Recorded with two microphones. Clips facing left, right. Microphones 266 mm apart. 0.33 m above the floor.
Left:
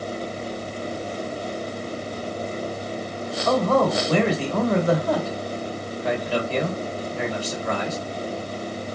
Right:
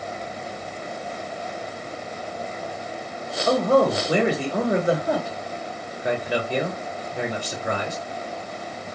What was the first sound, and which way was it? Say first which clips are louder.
A man speaking: right 2 dB; 15° right (ahead or behind).